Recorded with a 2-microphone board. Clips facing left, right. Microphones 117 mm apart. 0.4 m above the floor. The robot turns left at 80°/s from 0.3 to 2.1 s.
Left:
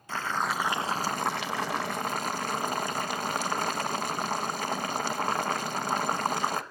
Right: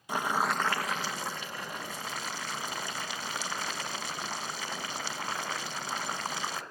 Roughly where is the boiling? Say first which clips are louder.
Right 1 dB; behind.